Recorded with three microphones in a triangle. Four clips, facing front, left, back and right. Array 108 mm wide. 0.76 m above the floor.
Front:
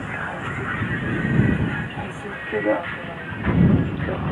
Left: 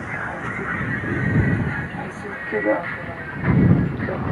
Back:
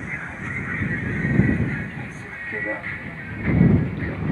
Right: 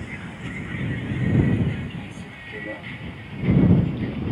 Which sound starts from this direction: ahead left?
A vehicle, at 0.0 s.